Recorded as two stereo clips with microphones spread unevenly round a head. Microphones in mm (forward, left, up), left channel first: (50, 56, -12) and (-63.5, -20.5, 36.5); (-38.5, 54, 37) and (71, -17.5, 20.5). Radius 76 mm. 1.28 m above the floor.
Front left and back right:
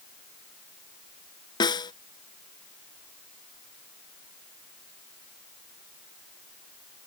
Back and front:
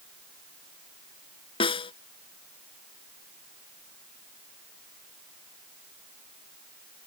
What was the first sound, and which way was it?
A snare drum, 100° left.